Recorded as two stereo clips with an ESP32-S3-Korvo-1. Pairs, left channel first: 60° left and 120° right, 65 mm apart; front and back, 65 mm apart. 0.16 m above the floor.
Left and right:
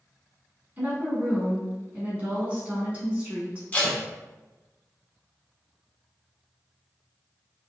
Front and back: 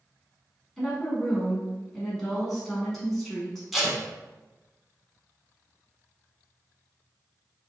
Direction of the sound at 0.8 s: 80° right.